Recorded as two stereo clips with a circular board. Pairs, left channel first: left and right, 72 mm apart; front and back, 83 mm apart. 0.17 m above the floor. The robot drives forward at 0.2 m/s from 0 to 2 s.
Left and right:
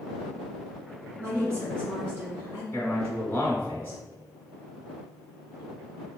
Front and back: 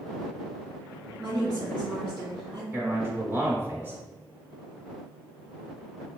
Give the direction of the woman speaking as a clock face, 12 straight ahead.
5 o'clock.